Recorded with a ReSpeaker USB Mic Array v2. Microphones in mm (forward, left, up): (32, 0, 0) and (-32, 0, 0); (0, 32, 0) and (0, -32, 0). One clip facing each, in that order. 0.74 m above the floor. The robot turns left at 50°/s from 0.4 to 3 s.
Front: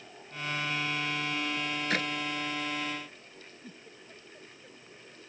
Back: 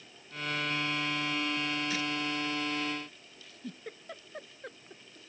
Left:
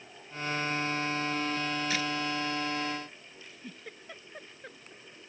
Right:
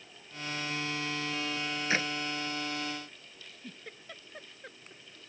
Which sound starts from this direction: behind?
A giggle, at 3.4 s.